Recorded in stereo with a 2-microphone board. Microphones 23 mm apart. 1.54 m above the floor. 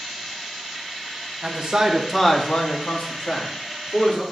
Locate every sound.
1.4 s a man speaking: 50° right (ahead or behind), 1.3 m; by 4.2 s 85° left, 3.5 m